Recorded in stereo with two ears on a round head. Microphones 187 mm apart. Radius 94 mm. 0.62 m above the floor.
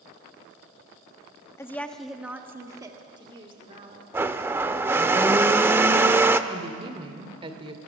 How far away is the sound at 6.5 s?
About 1.8 m.